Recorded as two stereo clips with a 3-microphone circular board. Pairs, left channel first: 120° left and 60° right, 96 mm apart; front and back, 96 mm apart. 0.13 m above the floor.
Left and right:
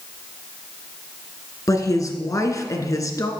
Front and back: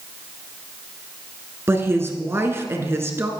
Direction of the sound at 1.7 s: 135° left.